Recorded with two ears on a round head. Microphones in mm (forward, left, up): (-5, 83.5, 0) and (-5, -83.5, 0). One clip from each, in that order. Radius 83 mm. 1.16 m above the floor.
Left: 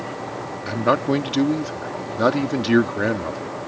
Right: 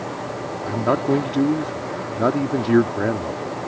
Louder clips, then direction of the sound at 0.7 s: Left 1 dB; 80° left.